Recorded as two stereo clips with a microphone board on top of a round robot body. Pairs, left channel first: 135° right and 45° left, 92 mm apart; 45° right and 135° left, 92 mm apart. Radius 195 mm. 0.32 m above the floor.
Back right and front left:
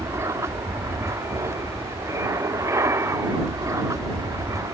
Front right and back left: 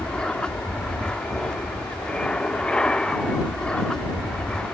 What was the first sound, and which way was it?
An aircraft, 25° left.